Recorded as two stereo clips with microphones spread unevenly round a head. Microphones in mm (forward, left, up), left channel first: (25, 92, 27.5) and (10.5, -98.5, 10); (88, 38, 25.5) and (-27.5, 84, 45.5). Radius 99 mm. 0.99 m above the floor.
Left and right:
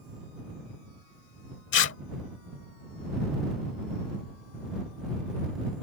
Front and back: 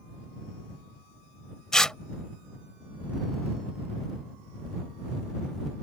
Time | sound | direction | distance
1.7 | tearing paper | 70° left | ?